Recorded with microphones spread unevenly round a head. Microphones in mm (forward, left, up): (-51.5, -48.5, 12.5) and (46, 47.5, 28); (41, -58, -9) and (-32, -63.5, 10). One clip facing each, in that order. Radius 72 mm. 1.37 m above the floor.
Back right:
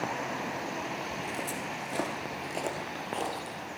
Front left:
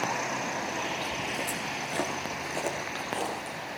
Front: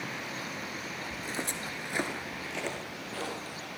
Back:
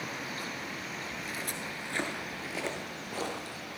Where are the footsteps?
40° right, 1.6 m; by 3.5 s 130° left, 2.5 m.